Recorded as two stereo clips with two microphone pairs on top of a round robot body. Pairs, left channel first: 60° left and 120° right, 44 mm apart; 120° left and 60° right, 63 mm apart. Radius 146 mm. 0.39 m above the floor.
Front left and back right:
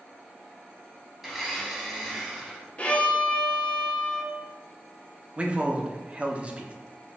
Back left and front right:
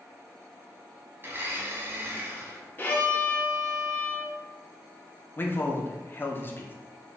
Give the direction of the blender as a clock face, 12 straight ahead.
1 o'clock.